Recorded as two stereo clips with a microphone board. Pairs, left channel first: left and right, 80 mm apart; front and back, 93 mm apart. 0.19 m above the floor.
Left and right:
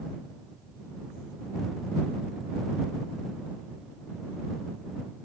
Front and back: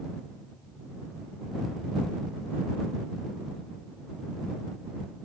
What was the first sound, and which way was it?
Only background noise.